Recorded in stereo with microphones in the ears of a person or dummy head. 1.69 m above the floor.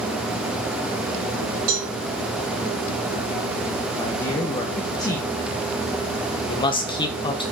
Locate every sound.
1.7 s a cowbell: 80° right, 5 m
4.0 s a man speaking: 20° left (ahead or behind), 1.5 m
6.5 s a man speaking: 25° left (ahead or behind), 1.4 m